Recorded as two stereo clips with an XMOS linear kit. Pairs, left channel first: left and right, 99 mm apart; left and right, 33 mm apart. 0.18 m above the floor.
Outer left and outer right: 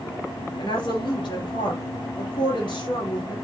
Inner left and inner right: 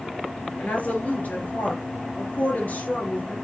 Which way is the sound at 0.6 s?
55° left (ahead or behind).